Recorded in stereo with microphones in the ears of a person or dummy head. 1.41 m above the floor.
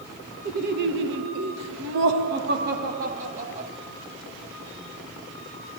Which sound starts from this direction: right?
Laughter, at 0.5 s.